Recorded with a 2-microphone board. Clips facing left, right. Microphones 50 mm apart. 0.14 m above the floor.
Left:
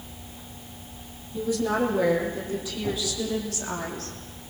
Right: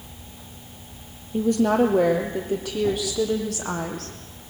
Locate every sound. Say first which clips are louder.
1.3 s a woman speaking: right 6 dB; 60° right (ahead or behind), 4.5 m